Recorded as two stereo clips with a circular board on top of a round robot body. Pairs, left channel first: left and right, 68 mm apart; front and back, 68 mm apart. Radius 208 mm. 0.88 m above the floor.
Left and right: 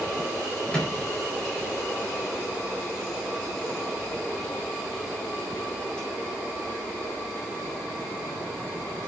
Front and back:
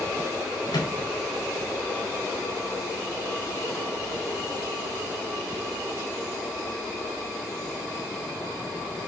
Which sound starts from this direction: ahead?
A microwave, at 0.7 s.